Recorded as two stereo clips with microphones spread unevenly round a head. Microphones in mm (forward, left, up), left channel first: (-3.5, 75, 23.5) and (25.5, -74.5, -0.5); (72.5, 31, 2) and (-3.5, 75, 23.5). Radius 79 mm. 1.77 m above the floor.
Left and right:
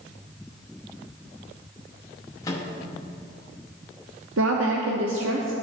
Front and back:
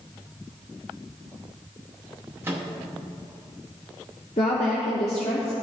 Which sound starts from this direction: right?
A woman speaking, at 4.4 s.